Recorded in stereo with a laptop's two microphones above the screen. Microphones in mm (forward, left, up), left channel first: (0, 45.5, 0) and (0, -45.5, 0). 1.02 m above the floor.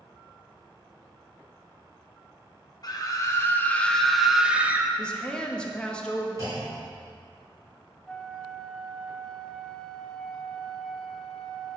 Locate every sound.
2.8 s a scream: 45° left (ahead or behind), 1.0 m; by 4.9 s 20° right (ahead or behind), 1.1 m
5.0 s a woman speaking: 10° left (ahead or behind), 1.5 m
6.4 s a clunk: 35° right (ahead or behind), 3.5 m
8.1 s a flute: 10° left (ahead or behind), 0.9 m